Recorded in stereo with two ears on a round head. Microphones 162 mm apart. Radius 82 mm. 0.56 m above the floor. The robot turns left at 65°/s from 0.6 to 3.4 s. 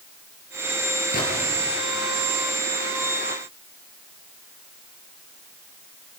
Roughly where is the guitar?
I don't hear a guitar.